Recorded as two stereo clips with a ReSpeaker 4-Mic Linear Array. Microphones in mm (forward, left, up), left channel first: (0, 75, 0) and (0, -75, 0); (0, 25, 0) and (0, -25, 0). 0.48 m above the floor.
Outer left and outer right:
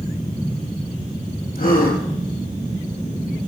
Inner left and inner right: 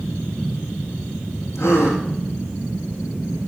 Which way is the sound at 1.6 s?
70° left (ahead or behind).